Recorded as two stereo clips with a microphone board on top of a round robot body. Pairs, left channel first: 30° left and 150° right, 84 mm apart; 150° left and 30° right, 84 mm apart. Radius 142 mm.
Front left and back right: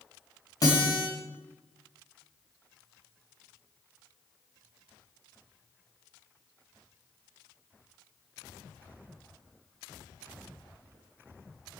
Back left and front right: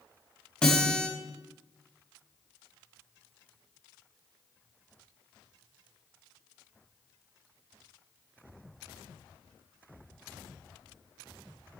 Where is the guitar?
70° left, 4 m.